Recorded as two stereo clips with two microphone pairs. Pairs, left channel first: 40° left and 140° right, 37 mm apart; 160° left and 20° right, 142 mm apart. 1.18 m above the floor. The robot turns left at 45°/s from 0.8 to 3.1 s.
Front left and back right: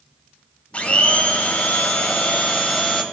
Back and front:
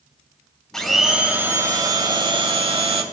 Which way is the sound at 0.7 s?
70° left.